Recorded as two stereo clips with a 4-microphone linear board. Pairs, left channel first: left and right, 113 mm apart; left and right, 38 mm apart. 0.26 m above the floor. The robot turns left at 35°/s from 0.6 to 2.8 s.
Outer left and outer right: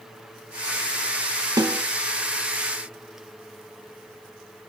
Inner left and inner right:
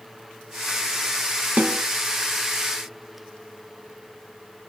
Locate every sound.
1.6 s a snare drum: 35° right (ahead or behind), 1.2 m; by 1.8 s 25° right (ahead or behind), 1.2 m